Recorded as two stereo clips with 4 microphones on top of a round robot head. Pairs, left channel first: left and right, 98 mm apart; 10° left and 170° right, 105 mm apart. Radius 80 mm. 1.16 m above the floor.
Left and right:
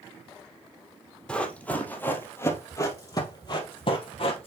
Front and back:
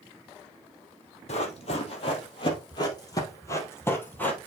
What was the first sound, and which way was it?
Running footsteps, 10° left.